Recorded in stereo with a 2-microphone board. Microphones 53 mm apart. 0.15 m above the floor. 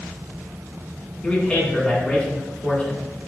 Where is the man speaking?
20° left (ahead or behind), 1.2 m.